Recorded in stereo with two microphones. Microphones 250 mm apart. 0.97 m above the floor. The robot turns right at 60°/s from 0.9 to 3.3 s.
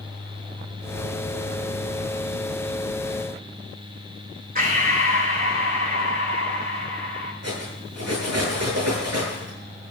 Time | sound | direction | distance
4.5 | breathing | 35° right (ahead or behind) | 3 m
7.4 | cutlery clinking | 90° right | 9 m